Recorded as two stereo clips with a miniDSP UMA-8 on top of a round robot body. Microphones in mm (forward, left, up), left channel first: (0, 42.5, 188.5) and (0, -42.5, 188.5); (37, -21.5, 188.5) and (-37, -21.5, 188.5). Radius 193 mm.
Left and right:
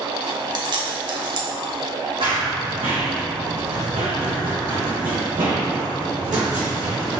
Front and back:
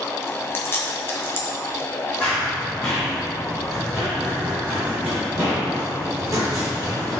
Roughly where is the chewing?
Ahead right.